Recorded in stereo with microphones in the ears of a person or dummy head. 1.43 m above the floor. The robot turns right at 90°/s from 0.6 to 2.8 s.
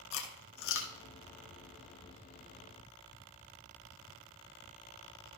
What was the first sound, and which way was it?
Chewing, 70° left (ahead or behind).